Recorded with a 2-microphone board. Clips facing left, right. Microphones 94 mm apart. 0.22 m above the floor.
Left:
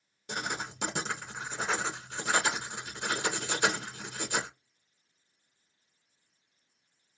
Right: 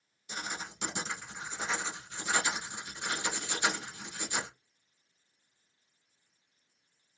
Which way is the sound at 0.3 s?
70° left (ahead or behind).